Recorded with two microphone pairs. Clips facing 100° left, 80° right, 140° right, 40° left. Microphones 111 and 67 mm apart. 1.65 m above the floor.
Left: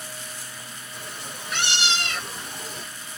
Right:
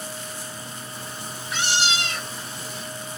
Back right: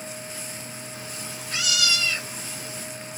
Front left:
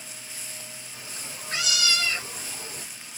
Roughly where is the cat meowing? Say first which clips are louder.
Left 1 dB, back right 4 dB; left.